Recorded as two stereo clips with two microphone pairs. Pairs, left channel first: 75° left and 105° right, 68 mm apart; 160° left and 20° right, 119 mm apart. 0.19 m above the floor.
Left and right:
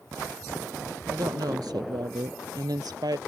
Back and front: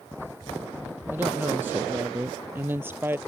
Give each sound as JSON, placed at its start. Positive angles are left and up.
{"t": 1.1, "sound": "a woman speaking", "azimuth_deg": -95}